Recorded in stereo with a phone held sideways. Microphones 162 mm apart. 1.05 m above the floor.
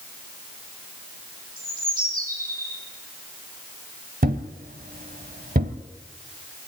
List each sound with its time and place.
1.6 s a bird: 55° right (ahead or behind), 6 m
4.2 s a thud: 55° right (ahead or behind), 1.4 m